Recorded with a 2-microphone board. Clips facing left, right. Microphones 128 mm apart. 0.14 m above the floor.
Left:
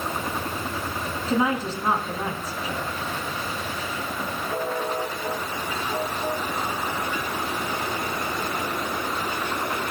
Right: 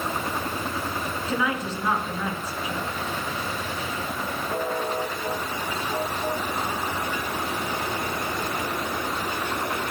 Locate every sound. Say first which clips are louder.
1.3 s a woman speaking: left 5 dB; 30° left (ahead or behind), 1.7 m